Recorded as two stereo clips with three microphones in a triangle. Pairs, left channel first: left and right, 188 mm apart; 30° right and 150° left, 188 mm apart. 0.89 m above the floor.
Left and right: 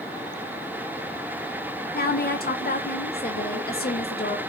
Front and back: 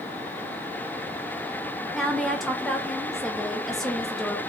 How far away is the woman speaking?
About 0.6 m.